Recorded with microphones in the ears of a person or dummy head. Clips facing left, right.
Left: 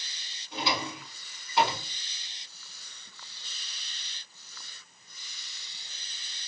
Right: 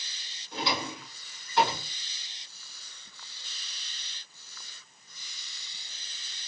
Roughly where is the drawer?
Centre.